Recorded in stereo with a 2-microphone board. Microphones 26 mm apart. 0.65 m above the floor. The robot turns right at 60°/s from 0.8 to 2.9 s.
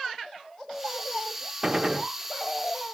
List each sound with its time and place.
1.6 s a gunshot: 25° right (ahead or behind), 0.7 m